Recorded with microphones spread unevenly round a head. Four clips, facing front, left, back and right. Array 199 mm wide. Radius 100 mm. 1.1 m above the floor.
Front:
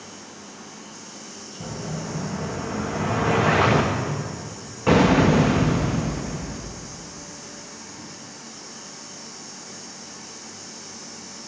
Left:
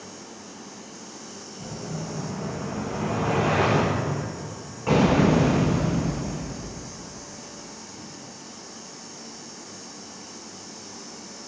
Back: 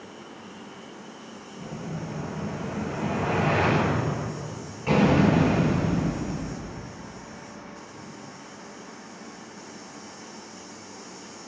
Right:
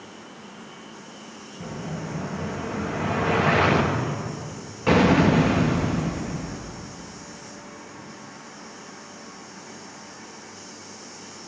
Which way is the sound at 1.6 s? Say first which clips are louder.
Right 1 dB, front 4 dB; 30° right.